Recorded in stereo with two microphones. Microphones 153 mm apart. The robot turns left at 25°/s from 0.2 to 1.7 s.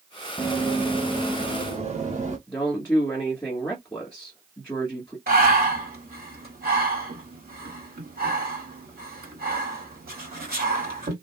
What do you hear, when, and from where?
0.4 s running footsteps: 5° left (ahead or behind), 0.9 m; by 2.4 s 55° right (ahead or behind), 1.5 m
2.5 s a woman speaking: 15° left (ahead or behind), 1.4 m
5.3 s breathing: 80° right, 1.5 m